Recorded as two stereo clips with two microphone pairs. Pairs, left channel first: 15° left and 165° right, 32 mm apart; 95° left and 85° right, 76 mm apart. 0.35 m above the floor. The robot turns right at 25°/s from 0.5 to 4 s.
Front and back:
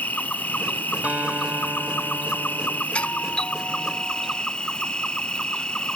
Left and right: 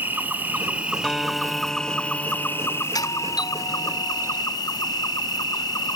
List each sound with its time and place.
0.0 s an insect: 15° right; by 6.0 s 70° left
1.0 s a guitar: straight behind; by 2.9 s 135° right
3.0 s a doorbell: 65° left; by 4.4 s 90° left